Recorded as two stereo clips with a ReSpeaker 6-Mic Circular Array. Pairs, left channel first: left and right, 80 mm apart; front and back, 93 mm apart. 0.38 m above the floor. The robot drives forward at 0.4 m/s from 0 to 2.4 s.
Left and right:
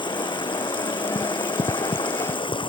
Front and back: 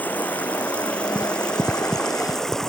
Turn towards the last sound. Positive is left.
turn(degrees=85)